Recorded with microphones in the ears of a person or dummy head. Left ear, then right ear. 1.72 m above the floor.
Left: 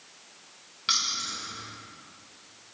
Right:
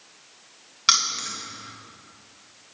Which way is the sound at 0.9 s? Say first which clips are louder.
Right 5 dB; 35° right (ahead or behind).